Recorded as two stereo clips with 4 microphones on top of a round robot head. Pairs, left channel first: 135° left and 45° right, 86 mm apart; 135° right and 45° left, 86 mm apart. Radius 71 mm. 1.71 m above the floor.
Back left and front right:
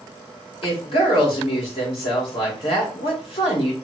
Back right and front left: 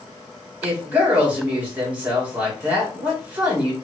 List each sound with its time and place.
0.6 s a woman speaking: 120° left, 2 m